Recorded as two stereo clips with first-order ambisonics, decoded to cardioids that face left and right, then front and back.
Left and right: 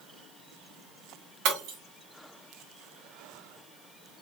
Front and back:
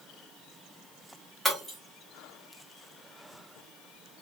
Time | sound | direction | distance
1.4 | breaking glass | 90° right | 1.7 m